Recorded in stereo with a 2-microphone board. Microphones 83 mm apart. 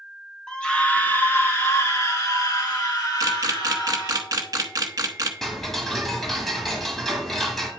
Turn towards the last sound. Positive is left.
turn(degrees=5)  # may be behind; listen again after turning